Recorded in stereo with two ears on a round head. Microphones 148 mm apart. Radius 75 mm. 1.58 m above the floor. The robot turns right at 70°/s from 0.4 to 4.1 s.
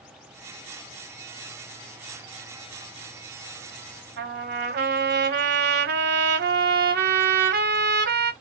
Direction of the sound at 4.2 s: 70° right (ahead or behind).